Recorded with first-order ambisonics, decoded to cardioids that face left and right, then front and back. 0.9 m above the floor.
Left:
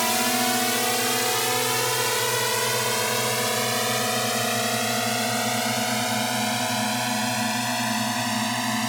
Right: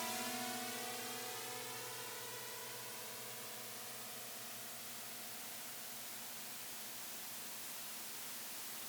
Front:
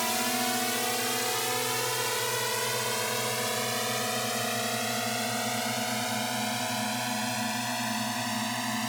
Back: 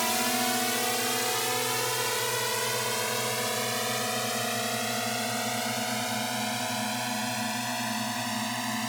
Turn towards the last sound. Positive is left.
turn(degrees=90)